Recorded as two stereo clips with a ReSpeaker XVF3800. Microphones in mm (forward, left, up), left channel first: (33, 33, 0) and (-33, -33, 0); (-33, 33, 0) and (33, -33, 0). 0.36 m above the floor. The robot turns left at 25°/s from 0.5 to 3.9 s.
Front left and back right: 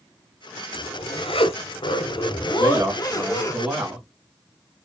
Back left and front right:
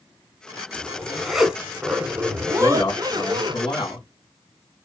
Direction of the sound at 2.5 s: 175° left.